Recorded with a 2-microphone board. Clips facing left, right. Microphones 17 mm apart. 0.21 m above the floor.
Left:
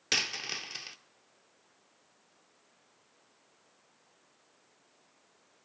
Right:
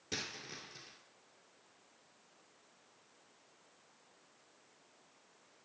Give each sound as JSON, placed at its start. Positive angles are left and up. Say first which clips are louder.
{"t": 0.1, "sound": "a dropped coin", "louder": "left 12 dB", "side_deg": 85, "distance_m": 0.7}